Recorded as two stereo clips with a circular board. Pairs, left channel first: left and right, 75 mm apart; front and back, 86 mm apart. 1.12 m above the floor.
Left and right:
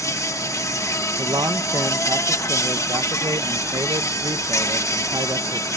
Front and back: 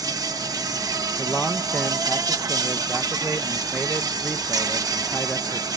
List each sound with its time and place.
0.0 s an insect: 135° left
1.2 s a man speaking: 75° right